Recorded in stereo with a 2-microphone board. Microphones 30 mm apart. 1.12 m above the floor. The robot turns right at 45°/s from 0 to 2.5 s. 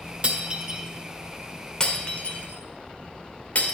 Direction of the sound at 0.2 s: 40° right (ahead or behind).